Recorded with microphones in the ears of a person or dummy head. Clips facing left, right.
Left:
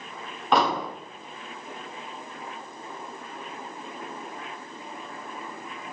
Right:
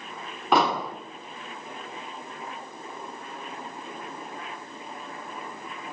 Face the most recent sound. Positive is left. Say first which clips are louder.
# even
turn(degrees=0)  # may be behind; listen again after turning